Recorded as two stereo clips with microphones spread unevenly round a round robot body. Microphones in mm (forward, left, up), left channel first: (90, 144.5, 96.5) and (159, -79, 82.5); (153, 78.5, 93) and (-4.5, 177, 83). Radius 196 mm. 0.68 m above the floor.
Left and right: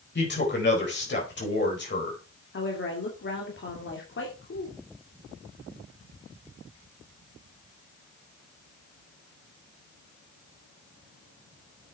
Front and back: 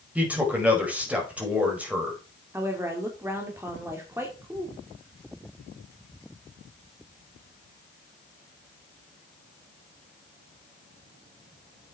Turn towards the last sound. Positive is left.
turn(degrees=75)